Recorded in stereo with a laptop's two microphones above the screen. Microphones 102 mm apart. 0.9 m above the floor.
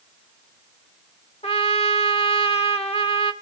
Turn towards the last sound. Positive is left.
turn(degrees=70)  # may be behind; listen again after turning